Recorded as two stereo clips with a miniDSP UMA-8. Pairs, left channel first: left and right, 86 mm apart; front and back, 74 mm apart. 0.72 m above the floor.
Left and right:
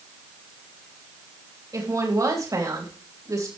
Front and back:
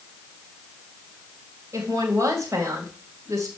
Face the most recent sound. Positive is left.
turn(degrees=-135)